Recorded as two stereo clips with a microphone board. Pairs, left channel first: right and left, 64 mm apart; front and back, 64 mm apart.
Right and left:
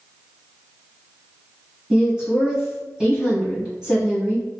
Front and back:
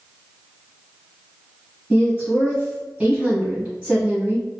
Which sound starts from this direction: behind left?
A woman speaking, at 1.9 s.